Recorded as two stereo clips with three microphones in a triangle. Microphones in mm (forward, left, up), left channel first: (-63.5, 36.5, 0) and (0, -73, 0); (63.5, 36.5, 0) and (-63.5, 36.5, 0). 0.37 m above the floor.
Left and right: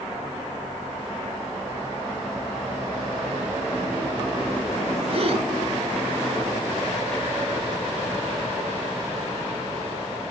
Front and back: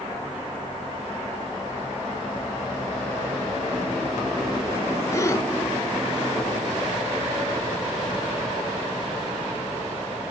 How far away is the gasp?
About 2 m.